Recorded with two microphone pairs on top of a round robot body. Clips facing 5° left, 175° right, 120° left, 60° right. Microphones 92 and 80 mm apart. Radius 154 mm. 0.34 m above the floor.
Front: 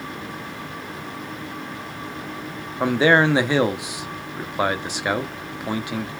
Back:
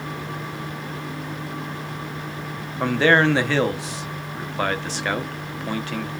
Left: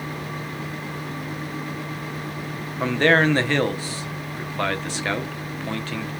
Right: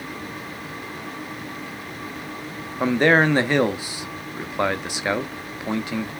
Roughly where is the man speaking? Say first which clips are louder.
Front 1 dB, right 1 dB; ahead right.